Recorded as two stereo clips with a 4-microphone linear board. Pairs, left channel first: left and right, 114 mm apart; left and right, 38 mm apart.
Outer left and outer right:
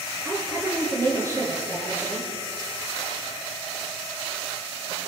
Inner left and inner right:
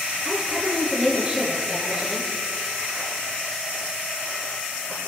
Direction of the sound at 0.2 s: 25° right (ahead or behind).